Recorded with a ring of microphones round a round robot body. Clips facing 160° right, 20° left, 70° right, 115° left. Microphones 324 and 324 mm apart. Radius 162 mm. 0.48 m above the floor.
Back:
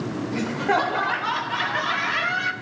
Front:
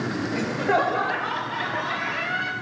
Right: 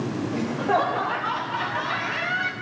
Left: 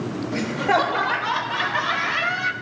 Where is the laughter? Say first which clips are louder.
Even, left 2 dB; 125° left, 2 m; by 2.5 s 165° left, 3.5 m.